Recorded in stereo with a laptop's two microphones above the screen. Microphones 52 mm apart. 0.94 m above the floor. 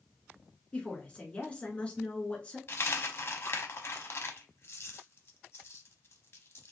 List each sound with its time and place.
0.7 s a woman speaking: 20° left (ahead or behind), 1.7 m
2.7 s a dropped coin: 50° left (ahead or behind), 0.8 m